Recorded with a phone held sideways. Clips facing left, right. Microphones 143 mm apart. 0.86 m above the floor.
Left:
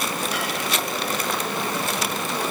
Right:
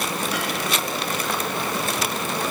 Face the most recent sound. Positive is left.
No sound to turn to.